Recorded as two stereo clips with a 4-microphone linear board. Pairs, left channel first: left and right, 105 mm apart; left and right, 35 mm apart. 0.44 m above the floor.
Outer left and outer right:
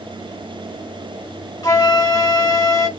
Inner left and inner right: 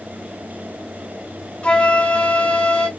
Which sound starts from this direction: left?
A flute, at 1.6 s.